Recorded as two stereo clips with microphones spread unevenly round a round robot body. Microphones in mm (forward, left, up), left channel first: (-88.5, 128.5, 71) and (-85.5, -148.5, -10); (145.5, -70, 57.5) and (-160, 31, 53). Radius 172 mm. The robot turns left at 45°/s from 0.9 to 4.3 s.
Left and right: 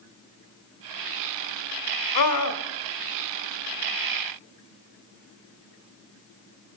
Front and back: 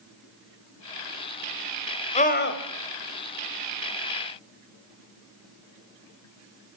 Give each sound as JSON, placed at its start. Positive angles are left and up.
{"t": 2.1, "sound": "a scream", "azimuth_deg": 55, "distance_m": 3.0}